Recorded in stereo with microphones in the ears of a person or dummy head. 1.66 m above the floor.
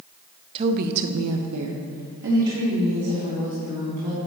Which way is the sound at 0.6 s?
30° right (ahead or behind).